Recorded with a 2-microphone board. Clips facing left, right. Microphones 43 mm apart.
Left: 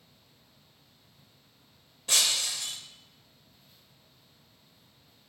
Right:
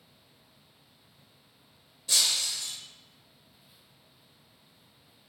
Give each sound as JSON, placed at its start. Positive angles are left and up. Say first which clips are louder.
{"t": 2.1, "sound": "breaking glass", "louder": "left 1 dB", "side_deg": 50, "distance_m": 0.8}